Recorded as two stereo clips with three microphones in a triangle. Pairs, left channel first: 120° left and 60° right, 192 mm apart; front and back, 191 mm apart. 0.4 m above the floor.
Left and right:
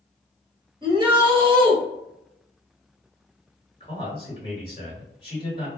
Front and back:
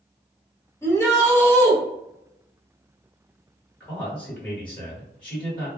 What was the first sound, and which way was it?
A shout, 55° right.